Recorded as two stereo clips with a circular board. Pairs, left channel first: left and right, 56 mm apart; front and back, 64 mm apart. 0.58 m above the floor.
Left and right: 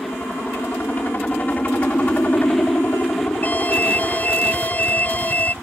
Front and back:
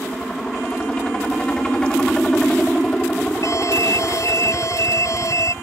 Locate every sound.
0.0 s a helicopter: 65° left; by 5.6 s 60° left
3.4 s an alarm: 30° left